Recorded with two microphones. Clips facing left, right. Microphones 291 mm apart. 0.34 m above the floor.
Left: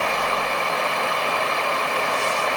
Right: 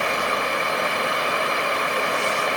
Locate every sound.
Only background noise.